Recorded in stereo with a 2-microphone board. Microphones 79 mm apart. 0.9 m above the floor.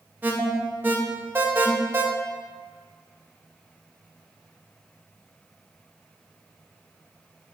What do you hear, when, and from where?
0.2 s an alarm: 25° right (ahead or behind), 0.5 m